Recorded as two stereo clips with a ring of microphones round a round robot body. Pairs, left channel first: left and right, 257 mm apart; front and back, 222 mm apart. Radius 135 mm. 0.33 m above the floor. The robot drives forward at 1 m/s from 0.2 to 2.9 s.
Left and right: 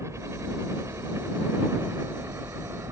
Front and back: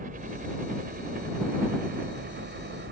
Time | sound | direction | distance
0.0 | a helicopter | 165° right | ?